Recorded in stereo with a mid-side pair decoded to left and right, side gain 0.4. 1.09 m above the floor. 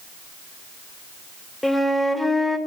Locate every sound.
1.6 s a flute: 5° left, 1.5 m